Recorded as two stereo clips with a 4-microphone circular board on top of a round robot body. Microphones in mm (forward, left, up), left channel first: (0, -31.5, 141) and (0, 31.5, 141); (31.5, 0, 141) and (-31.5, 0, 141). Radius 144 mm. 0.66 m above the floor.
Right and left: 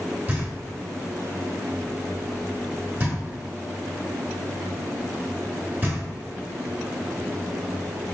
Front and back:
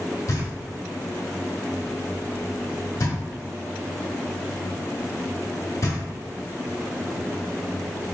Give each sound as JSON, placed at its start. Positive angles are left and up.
{"t": 0.3, "sound": "knocking", "azimuth_deg": 35, "distance_m": 1.7}